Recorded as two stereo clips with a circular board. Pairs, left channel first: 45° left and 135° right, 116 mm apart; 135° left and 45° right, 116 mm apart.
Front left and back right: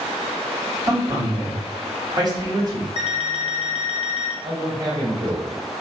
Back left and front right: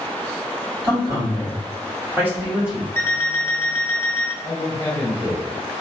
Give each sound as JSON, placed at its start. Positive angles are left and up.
{"t": 0.8, "sound": "a man speaking", "azimuth_deg": -90, "distance_m": 1.9}
{"t": 3.0, "sound": "an alarm clock", "azimuth_deg": 70, "distance_m": 0.7}
{"t": 4.4, "sound": "a man speaking", "azimuth_deg": -90, "distance_m": 2.0}